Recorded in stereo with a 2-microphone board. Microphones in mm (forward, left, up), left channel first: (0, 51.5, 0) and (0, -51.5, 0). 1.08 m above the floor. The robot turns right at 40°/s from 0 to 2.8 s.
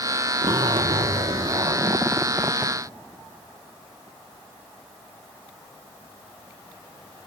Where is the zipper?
105° right, 0.9 m; by 2.8 s 10° right, 0.9 m.